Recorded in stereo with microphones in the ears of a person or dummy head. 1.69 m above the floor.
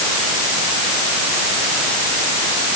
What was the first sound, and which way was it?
Only background noise.